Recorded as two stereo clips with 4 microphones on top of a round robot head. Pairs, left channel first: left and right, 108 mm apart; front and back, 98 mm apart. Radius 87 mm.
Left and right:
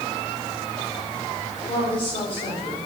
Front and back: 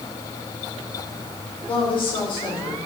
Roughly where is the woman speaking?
Ahead left.